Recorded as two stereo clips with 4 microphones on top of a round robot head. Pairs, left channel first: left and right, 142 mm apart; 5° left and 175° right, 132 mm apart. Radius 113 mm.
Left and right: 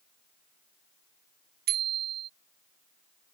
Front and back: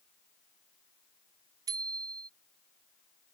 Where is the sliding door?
I don't hear a sliding door.